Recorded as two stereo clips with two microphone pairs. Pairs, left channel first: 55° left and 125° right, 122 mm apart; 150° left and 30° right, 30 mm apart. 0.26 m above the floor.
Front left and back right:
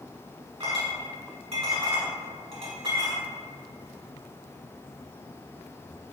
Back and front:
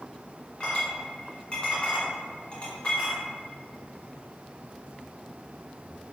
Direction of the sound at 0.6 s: 155° right.